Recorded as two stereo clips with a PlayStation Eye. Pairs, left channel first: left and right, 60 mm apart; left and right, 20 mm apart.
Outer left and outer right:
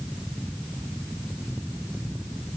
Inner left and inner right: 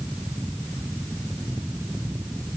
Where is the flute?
I don't hear a flute.